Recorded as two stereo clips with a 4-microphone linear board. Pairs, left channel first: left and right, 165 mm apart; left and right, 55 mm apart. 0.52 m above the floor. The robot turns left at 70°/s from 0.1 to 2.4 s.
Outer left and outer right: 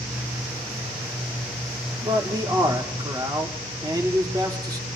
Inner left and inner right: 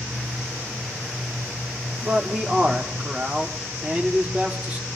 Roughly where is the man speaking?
Right.